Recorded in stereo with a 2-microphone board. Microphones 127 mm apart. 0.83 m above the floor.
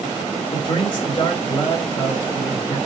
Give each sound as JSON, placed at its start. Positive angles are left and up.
{"t": 0.5, "sound": "a man speaking", "side_deg": 45, "distance_m": 2.5}